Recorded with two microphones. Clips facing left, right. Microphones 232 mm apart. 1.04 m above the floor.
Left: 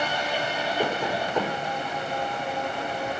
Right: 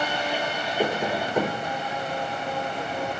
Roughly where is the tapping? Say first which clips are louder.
Right 3 dB; centre.